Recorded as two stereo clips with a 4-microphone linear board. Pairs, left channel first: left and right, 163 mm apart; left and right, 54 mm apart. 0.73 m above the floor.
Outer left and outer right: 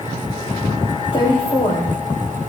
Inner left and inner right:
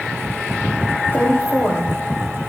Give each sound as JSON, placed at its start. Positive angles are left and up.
{"t": 1.1, "sound": "a woman speaking", "side_deg": 40, "distance_m": 3.0}